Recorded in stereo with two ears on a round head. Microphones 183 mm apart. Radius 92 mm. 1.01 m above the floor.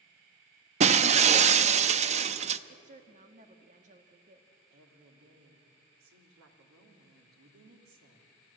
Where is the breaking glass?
35° right (ahead or behind), 0.6 m.